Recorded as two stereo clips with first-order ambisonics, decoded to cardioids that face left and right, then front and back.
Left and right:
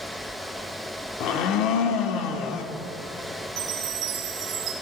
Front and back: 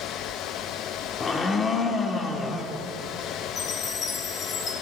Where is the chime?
60° right, 2 m.